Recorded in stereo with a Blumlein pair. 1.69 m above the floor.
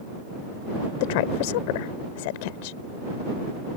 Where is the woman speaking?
50° left.